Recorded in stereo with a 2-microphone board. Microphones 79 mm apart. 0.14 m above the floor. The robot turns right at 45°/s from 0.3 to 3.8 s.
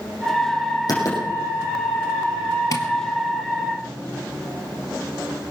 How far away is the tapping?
About 1.8 m.